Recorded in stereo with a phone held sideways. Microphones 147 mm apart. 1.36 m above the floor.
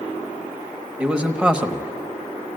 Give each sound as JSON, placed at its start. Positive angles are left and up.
{"t": 1.0, "sound": "a man speaking", "side_deg": -5, "distance_m": 1.1}